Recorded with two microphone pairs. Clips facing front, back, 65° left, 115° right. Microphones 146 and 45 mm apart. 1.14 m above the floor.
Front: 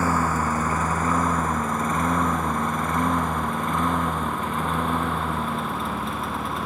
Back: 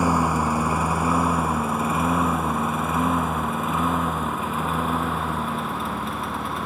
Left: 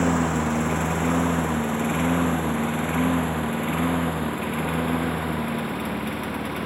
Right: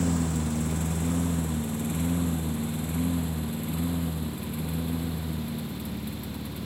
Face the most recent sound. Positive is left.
turn(degrees=90)